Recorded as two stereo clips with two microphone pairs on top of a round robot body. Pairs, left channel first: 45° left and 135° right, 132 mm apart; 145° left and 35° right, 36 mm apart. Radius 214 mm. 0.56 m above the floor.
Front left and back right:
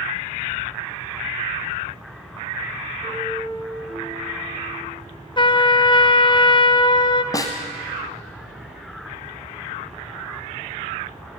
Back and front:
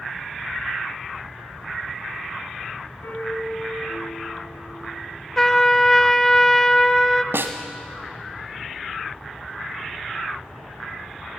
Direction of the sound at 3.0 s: 155° left.